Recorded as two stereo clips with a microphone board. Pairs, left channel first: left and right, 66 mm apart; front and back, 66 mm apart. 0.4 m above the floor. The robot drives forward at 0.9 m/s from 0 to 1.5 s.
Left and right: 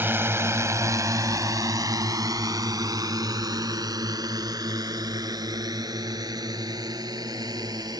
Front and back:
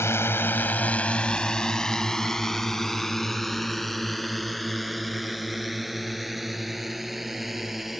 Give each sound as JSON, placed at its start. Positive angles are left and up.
{"t": 0.0, "sound": "a drone", "azimuth_deg": -40}